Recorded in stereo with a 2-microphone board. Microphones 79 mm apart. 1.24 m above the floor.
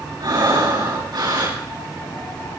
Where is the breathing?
75° right (ahead or behind), 9 m.